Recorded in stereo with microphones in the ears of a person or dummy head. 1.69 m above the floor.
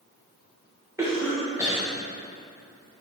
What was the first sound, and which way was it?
A cough, 15° right (ahead or behind).